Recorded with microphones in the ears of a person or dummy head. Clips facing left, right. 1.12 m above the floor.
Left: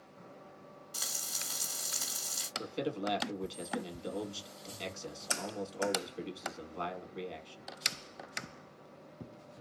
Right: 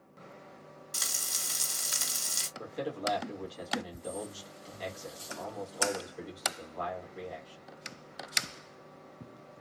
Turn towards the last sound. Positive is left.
turn(degrees=40)  # may be behind; listen again after turning